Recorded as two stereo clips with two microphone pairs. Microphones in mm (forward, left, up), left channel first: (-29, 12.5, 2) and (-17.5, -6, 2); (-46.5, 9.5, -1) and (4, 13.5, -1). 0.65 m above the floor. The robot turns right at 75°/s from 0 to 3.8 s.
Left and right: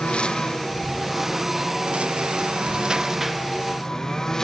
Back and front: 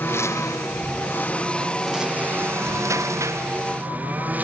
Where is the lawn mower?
140° left; by 4.4 s 60° left.